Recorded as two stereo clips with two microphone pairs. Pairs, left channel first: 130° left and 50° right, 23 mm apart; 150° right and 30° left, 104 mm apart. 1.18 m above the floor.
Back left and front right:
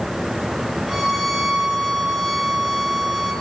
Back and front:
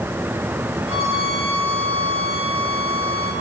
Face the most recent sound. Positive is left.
turn(degrees=40)